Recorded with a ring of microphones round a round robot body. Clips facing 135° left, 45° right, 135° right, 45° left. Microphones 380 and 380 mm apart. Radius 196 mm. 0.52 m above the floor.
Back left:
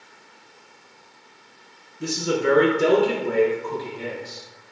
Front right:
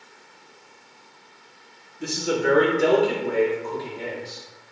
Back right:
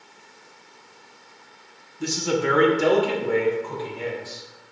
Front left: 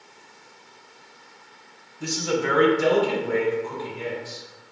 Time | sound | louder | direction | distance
2.0 | a man speaking | back left 1 dB, back right 2 dB | 140° right | 0.7 m